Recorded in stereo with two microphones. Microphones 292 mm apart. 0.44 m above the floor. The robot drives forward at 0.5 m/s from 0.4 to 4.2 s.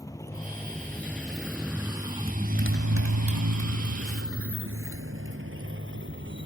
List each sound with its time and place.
0.0 s a motorcycle: 10° left (ahead or behind); by 6.5 s 40° right (ahead or behind)